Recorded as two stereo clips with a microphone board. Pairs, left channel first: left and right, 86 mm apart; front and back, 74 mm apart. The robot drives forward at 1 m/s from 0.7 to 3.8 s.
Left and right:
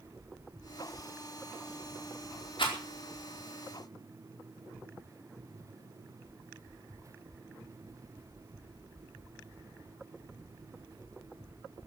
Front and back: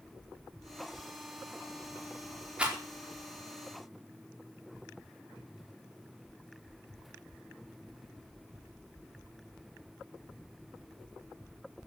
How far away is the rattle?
About 4.5 m.